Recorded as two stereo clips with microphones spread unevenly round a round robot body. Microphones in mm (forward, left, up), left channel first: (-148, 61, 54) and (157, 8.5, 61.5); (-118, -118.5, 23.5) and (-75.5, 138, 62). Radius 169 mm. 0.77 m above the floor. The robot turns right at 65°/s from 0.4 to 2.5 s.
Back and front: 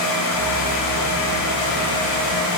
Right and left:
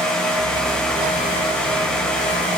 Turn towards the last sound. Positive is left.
No sound to turn to.